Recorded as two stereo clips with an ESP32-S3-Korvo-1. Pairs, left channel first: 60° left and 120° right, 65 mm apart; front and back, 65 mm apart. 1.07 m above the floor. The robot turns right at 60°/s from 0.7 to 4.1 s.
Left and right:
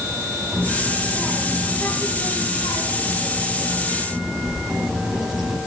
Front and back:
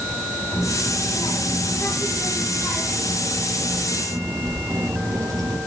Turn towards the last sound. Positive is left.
turn(degrees=155)